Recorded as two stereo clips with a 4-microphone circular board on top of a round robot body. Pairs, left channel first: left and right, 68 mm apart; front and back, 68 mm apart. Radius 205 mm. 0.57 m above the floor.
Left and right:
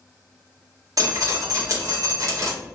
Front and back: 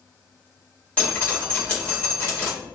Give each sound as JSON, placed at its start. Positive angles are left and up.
{"t": 1.0, "sound": "dripping", "azimuth_deg": -60, "distance_m": 2.0}